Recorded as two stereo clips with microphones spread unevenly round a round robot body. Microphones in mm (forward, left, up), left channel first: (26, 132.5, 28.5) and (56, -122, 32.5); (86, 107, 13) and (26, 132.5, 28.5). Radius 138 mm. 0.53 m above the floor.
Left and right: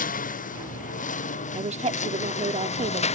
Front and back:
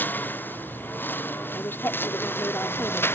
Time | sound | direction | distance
0.0 | a lawn mower | 40° left | ?
1.5 | a woman speaking | 30° right | ?